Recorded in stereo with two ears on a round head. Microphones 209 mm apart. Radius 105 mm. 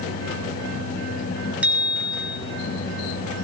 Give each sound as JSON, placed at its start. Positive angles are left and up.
{"t": 1.6, "sound": "a bicycle bell", "side_deg": -5, "distance_m": 5.0}